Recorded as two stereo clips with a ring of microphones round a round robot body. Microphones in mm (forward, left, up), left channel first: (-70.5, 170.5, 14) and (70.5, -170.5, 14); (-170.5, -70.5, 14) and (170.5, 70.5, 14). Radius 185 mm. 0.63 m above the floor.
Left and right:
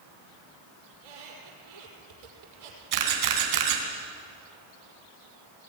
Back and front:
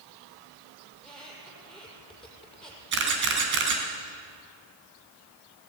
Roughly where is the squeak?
Right.